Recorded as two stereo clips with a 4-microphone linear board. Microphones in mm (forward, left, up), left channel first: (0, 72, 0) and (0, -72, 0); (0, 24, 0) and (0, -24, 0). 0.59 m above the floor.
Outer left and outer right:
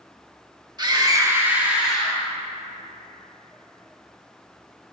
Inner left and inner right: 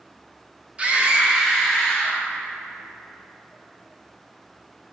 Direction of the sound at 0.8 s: 30° right (ahead or behind).